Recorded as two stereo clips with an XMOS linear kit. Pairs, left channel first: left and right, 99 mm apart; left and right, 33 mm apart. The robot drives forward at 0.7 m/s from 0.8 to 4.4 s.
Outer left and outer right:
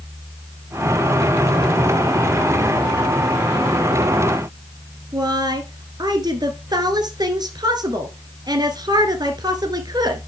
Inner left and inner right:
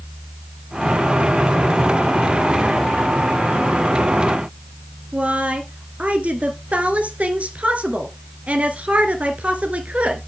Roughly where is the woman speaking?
Right.